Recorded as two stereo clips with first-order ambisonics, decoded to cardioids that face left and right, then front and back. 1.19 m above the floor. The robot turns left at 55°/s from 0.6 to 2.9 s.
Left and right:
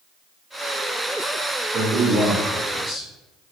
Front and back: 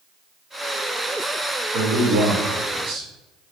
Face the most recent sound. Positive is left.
turn(degrees=145)